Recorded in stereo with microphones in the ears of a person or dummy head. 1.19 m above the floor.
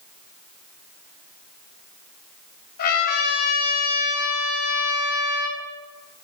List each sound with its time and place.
2.8 s a trumpet: 60° left (ahead or behind), 1.6 m